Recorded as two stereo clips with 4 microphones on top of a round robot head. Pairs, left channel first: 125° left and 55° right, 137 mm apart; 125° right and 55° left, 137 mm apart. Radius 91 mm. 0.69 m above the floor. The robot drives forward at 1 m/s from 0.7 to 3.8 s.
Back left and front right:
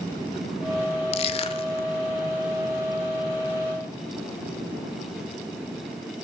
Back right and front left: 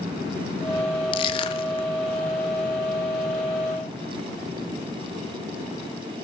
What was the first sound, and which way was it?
Crushing, 175° left.